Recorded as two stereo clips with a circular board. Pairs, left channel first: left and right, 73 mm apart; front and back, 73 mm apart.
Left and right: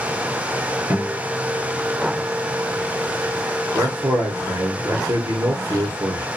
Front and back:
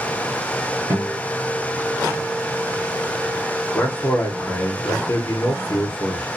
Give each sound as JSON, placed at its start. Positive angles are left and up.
{"t": 0.9, "sound": "a guitar", "azimuth_deg": -150, "distance_m": 1.5}
{"t": 3.7, "sound": "a man speaking", "azimuth_deg": -55, "distance_m": 0.9}